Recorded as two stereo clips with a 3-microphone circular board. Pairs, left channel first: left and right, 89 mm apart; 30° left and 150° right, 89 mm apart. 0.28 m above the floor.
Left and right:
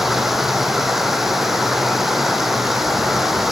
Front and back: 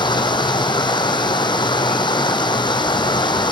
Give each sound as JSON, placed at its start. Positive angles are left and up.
{"t": 0.0, "sound": "running water", "azimuth_deg": -5, "distance_m": 1.6}